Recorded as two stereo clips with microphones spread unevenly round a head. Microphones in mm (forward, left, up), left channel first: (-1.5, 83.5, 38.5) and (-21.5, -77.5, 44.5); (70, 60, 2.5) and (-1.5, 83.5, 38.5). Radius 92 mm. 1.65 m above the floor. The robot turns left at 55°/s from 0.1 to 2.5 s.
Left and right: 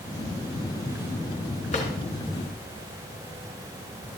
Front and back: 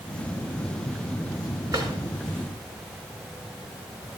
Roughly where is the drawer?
Behind left.